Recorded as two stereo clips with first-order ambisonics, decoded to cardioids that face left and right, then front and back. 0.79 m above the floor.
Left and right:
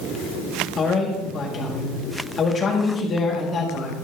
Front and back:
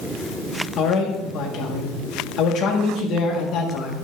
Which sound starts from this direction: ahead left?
A man speaking, at 0.8 s.